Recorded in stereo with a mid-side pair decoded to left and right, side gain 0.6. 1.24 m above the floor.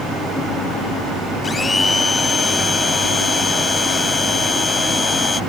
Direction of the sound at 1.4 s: 25° left.